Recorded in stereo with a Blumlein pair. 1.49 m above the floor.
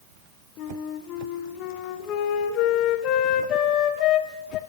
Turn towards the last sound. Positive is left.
turn(degrees=35)